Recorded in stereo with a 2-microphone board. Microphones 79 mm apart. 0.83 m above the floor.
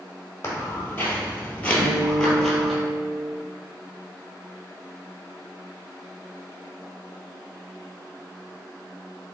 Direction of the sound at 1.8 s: 25° right (ahead or behind).